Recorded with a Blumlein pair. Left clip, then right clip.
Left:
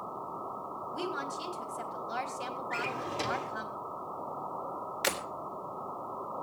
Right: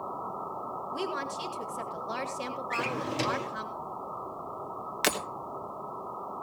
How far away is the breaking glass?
About 2.5 m.